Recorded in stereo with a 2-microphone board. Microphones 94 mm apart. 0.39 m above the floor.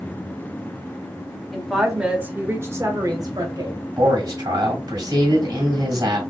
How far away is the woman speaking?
About 1.1 m.